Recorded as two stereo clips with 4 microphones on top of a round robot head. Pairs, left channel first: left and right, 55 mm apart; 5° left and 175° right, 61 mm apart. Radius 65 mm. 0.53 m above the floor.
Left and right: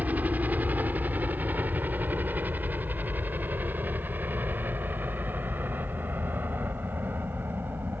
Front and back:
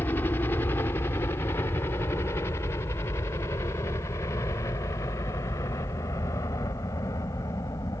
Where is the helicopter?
45° right; by 8.0 s 40° right.